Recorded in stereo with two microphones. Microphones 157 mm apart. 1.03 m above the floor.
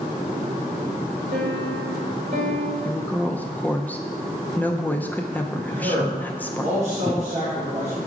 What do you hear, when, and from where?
1.3 s a piano: 75° right (ahead or behind), 2 m
2.9 s a woman speaking: 10° left (ahead or behind), 0.6 m
5.7 s a man speaking: 45° right (ahead or behind), 2.0 m